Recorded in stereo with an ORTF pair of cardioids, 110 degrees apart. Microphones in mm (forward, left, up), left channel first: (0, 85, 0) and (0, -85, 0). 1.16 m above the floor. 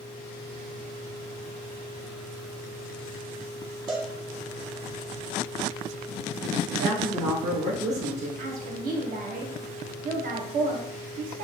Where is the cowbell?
25° right, 1.1 m.